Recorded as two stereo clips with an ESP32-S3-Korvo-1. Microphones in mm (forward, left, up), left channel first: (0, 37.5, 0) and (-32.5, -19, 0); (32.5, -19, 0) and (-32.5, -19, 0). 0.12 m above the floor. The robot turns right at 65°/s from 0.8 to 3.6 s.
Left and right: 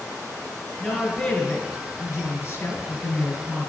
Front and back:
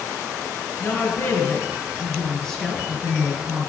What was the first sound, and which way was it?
A woman speaking, 35° right.